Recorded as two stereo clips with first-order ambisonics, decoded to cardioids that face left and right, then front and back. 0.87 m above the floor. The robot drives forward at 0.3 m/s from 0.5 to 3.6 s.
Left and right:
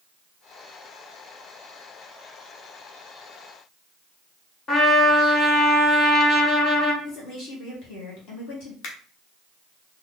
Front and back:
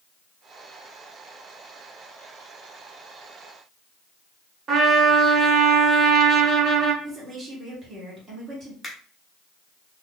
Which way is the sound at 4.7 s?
140° left.